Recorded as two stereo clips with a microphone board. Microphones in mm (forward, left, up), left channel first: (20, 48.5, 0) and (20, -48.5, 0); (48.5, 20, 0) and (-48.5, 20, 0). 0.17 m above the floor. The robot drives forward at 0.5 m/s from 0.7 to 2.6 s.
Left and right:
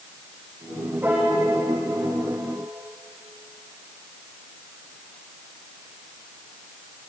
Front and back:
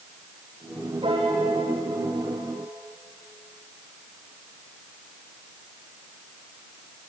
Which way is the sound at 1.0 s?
160° right.